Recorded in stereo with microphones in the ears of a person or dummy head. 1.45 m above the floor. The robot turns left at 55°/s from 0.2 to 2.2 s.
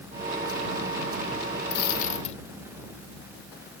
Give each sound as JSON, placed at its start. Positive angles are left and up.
{"t": 1.7, "sound": "a dropped coin", "side_deg": 60}